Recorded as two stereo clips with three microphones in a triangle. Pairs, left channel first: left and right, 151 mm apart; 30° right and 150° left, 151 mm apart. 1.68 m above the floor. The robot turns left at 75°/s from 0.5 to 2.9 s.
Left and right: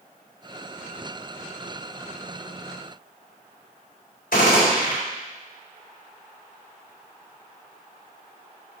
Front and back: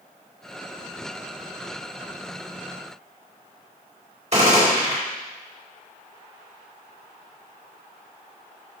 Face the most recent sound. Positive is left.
turn(degrees=110)